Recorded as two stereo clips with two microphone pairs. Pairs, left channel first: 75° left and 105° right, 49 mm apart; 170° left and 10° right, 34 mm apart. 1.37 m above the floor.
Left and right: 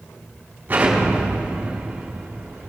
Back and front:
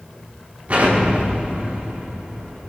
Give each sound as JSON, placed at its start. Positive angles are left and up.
{"t": 0.7, "sound": "an explosion", "azimuth_deg": -50, "distance_m": 5.5}